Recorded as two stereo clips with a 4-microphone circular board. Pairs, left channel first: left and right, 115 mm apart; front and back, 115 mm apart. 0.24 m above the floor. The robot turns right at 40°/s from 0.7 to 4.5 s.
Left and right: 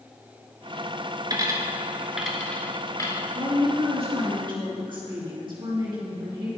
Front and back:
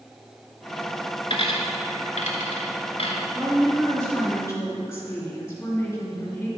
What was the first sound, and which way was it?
A dropped coin, 40° right.